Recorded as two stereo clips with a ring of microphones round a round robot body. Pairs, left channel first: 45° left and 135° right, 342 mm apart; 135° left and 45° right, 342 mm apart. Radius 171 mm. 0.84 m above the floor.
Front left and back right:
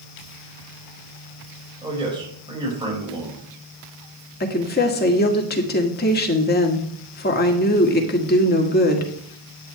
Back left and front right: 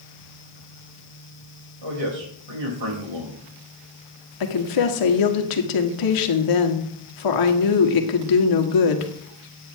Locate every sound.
1.8 s a man speaking: 60° right, 5.5 m
4.4 s a woman speaking: 110° left, 1.6 m